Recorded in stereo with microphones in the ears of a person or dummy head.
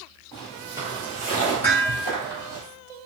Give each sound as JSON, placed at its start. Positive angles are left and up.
{"t": 0.3, "sound": "footsteps", "side_deg": 15, "distance_m": 1.7}
{"t": 1.6, "sound": "dishes clattering", "side_deg": 30, "distance_m": 1.3}